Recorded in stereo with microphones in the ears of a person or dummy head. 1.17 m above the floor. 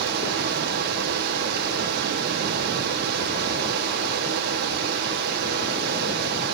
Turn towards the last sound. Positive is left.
turn(degrees=-55)  # may be behind; listen again after turning